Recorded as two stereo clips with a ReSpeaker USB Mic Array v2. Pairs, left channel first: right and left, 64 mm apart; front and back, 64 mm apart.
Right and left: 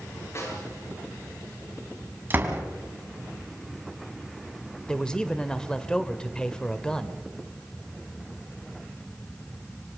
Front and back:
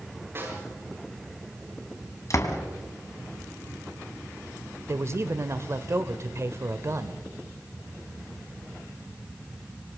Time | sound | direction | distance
0.3 | a snare drum | 130° right | 8 m
2.3 | a door slam | 35° left | 3 m
4.9 | a man speaking | 160° right | 1.5 m